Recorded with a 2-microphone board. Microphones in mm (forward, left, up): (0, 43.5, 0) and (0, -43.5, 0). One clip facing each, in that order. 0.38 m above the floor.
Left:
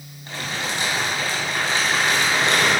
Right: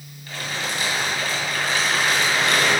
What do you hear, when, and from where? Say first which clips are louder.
0.3 s crumpling: left 1 dB; 30° left (ahead or behind), 3.5 m